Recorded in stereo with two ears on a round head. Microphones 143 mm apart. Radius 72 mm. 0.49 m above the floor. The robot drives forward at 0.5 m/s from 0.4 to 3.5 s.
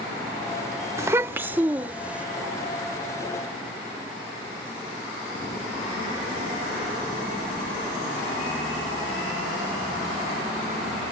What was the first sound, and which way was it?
A child speaking, 15° right (ahead or behind).